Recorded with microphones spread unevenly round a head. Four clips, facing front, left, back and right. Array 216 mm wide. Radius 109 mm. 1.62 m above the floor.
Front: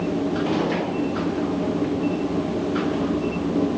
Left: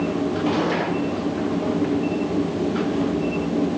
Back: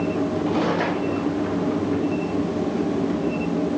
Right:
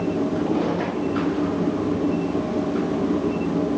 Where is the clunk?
I don't hear a clunk.